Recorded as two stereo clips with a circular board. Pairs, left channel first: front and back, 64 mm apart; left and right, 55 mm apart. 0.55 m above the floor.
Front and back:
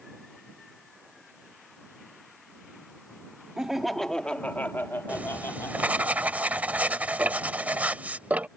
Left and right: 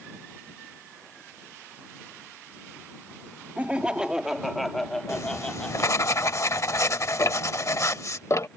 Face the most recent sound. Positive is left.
turn(degrees=115)